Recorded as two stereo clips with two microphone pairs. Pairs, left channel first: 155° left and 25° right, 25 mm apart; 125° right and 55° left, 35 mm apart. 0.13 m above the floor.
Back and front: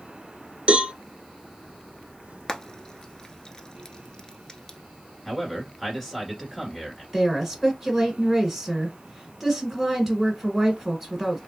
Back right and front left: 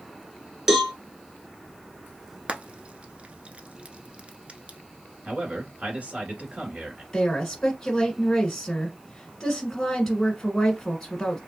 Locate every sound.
0.7 s a cowbell: 15° right, 0.7 m
2.5 s frying: 100° left, 0.6 m
5.2 s a man speaking: 60° left, 2.0 m
7.1 s a woman speaking: 50° right, 1.2 m